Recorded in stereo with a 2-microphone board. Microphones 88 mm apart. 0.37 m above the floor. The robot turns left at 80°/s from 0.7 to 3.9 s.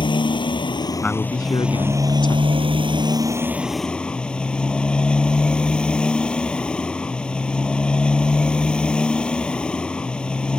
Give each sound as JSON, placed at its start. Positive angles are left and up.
{"t": 0.0, "sound": "a motorcycle", "azimuth_deg": 65}
{"t": 1.0, "sound": "a man speaking", "azimuth_deg": 165}